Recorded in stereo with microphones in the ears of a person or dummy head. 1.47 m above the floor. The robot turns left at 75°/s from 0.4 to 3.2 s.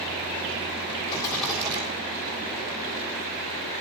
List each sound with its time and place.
1.1 s a rattle: 30° left, 6 m; by 1.8 s 30° right, 6 m